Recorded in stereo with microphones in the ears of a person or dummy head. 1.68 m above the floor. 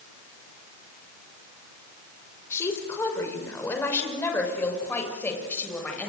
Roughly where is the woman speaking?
Centre.